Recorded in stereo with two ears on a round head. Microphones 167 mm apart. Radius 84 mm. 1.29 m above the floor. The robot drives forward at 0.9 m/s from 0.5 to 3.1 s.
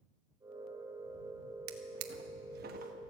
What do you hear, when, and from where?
1.7 s a drawer: 55° right (ahead or behind), 1.0 m; by 3.0 s 45° right (ahead or behind), 1.2 m